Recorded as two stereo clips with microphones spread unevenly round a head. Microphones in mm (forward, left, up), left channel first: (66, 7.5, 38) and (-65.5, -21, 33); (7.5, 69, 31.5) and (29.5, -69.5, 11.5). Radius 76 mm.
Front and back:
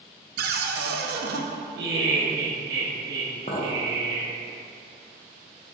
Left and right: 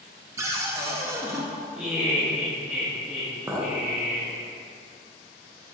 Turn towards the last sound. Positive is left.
turn(degrees=-5)